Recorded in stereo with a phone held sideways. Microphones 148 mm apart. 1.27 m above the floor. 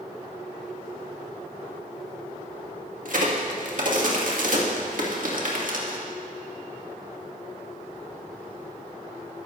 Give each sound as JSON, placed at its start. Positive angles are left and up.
{"t": 3.0, "sound": "a crack", "side_deg": -65, "distance_m": 1.9}